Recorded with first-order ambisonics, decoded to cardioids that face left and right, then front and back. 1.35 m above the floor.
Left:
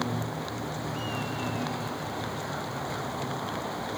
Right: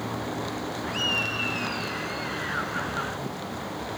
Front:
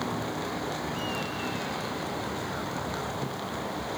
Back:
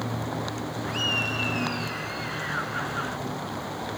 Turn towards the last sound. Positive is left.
turn(degrees=-135)